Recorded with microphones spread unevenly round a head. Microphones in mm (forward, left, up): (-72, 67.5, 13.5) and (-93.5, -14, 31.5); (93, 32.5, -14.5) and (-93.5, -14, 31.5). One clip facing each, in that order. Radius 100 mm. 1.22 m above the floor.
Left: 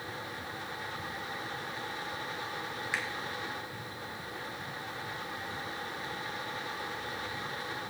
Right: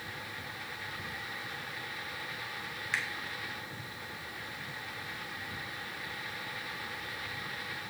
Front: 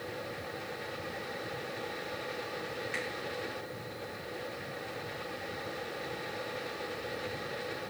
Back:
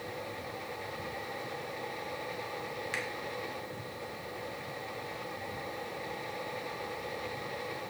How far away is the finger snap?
About 2.5 m.